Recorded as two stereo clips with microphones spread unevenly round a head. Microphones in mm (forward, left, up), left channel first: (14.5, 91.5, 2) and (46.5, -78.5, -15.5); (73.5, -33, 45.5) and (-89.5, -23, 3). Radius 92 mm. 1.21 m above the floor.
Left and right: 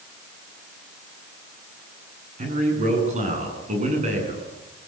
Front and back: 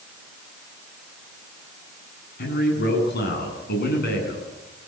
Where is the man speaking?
30° right, 9.5 m.